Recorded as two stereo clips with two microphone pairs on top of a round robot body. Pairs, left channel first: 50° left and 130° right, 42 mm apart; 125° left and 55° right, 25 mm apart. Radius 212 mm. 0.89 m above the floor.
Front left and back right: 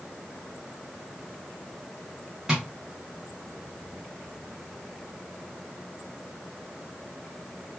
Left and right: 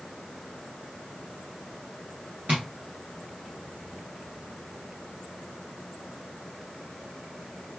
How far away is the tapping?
About 0.5 m.